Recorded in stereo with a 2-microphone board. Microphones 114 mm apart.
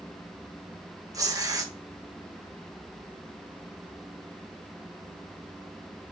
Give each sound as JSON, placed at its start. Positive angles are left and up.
{"t": 1.1, "sound": "tearing paper", "side_deg": -30, "distance_m": 0.8}